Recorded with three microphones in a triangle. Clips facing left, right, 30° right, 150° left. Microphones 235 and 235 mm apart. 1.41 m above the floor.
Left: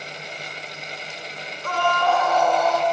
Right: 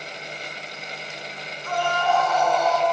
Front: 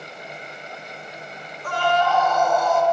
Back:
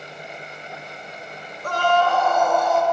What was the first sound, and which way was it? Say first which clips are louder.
A scream: left 2 dB, back 1 dB; 105° left.